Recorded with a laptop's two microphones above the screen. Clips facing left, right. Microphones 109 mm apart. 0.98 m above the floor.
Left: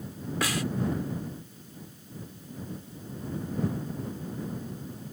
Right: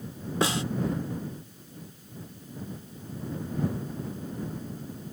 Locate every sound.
0.4 s a snare drum: 25° right (ahead or behind)